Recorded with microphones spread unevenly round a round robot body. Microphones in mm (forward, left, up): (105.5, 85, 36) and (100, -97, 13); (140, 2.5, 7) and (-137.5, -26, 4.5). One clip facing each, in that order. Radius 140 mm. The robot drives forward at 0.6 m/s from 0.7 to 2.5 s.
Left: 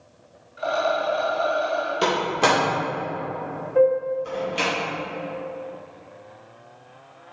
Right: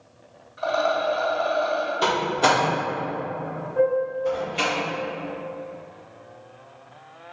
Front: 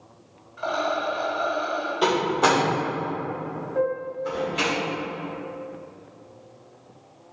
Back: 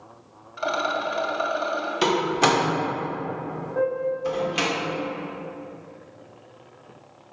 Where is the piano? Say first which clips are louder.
Left 3 dB, back 2 dB; 75° left, 1.6 m.